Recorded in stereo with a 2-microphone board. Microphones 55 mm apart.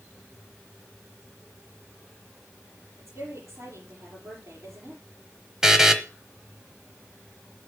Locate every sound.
3.0 s a woman speaking: 60° right (ahead or behind), 6 m
5.6 s a buzzer: 10° right (ahead or behind), 1.0 m